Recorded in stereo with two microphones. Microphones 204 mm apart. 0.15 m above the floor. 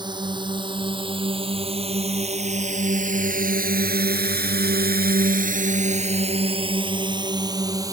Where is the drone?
20° right (ahead or behind); by 7.9 s 15° right (ahead or behind).